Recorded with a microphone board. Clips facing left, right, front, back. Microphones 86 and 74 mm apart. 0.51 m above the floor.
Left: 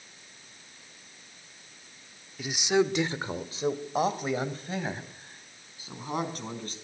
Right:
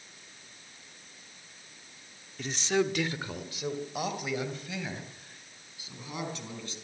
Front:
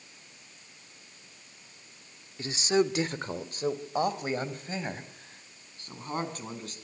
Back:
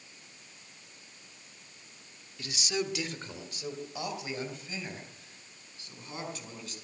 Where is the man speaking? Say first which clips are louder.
Left 3 dB, front 8 dB; 10° left, 1.1 m; by 6.7 s 45° left, 5.5 m.